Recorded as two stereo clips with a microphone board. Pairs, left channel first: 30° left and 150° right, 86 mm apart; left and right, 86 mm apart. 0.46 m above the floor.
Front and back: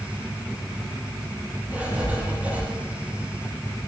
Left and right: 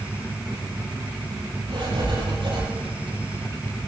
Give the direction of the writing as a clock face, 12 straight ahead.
3 o'clock.